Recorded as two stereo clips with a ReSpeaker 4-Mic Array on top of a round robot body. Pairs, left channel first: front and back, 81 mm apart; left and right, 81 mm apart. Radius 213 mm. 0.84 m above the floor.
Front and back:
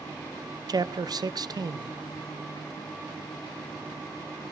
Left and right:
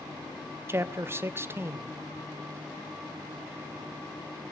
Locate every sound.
0.7 s a man speaking: 150° right, 0.8 m